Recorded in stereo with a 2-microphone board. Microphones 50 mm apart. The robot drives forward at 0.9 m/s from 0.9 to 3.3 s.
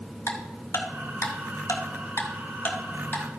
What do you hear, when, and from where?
0.3 s ticking: 60° left (ahead or behind), 1.2 m; by 3.2 s 35° left (ahead or behind), 1.8 m